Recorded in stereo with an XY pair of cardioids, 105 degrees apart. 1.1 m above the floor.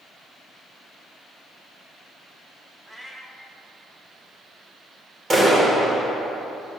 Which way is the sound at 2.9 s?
15° right.